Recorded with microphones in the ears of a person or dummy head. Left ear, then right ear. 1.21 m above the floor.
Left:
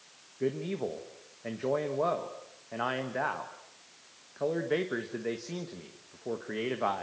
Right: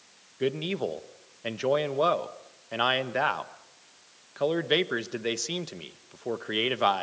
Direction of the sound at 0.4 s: 70° right (ahead or behind).